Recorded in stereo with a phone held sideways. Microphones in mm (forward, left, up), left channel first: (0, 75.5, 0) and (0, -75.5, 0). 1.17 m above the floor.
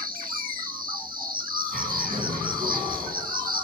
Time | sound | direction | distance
0.0 | an insect | 75° right (ahead or behind) | 1.7 m
1.7 | a bird | 60° right (ahead or behind) | 7.5 m